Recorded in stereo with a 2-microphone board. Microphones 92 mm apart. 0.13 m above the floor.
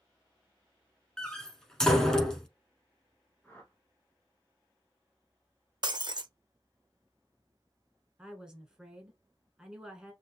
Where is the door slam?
5° left (ahead or behind), 0.8 m.